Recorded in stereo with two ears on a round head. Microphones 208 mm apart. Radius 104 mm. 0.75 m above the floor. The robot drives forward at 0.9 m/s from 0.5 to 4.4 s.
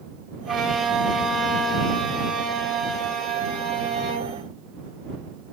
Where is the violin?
Centre (ahead or behind), 0.9 m.